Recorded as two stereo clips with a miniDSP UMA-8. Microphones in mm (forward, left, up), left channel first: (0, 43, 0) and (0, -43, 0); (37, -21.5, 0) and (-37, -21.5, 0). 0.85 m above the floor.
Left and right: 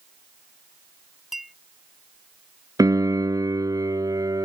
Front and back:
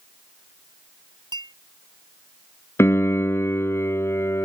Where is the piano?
50° right.